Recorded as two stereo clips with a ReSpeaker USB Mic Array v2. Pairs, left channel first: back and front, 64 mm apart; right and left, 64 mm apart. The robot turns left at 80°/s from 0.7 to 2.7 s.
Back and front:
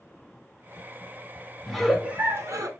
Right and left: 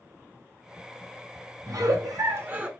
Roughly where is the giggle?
Left.